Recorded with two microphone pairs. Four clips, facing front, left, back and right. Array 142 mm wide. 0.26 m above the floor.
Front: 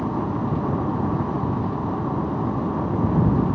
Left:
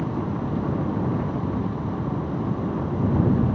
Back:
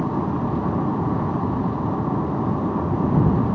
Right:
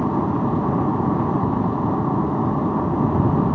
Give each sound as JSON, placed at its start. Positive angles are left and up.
{"t": 0.0, "sound": "an aircraft", "azimuth_deg": -95}